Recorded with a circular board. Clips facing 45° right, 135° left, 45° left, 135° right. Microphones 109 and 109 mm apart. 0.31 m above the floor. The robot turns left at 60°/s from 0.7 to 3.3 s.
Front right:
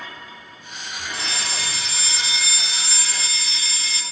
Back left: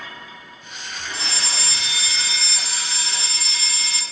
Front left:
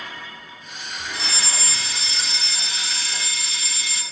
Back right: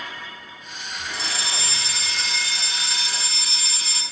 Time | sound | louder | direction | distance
1.1 | a fire alarm | even, even | 45° right | 4 m